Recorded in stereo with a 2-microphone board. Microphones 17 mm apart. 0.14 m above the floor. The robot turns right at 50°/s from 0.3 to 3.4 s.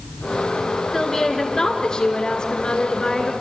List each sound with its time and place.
0.9 s a woman speaking: 15° left, 2.5 m; by 3.3 s 135° left, 2.5 m